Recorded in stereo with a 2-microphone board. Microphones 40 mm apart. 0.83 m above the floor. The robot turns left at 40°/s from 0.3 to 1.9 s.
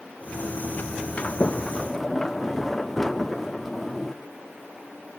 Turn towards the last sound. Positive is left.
turn(degrees=5)  # may be behind; listen again after turning